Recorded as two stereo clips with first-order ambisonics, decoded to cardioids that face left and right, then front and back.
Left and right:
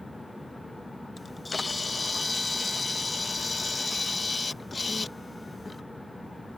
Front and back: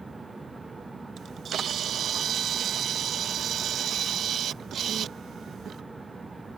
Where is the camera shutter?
160° left.